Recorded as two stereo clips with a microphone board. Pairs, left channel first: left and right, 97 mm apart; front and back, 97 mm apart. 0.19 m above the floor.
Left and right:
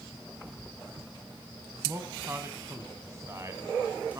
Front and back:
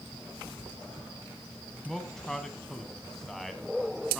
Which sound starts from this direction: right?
A man speaking, at 1.9 s.